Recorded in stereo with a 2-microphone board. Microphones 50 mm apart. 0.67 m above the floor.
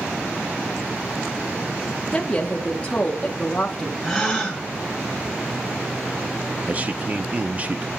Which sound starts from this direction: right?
A man speaking, at 6.7 s.